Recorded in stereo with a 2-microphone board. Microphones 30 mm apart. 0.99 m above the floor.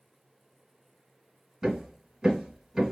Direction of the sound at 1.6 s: 10° right (ahead or behind).